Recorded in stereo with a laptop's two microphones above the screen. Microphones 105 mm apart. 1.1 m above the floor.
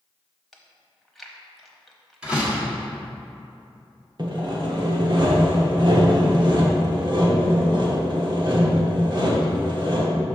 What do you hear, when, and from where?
0.5 s chewing: centre (ahead or behind), 0.9 m
2.2 s a door slam: 10° right (ahead or behind), 1.4 m
4.2 s sawing: 50° right (ahead or behind), 0.9 m